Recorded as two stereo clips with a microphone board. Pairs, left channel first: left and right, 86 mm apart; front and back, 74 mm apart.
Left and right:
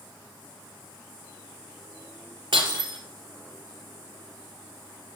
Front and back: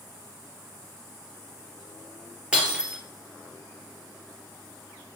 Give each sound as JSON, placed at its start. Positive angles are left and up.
{"t": 2.5, "sound": "breaking glass", "azimuth_deg": -105, "distance_m": 2.0}